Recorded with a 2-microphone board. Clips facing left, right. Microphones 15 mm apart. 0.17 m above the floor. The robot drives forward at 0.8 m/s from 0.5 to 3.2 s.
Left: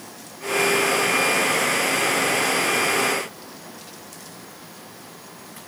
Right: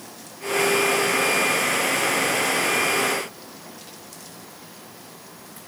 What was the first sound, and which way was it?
Only background noise.